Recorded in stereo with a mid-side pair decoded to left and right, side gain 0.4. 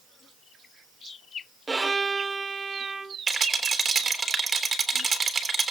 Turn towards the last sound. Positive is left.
turn(degrees=-40)